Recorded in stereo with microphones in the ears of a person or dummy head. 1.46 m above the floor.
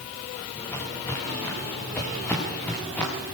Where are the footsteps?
15° left (ahead or behind), 10 m; by 3.1 s 10° left (ahead or behind), 8 m.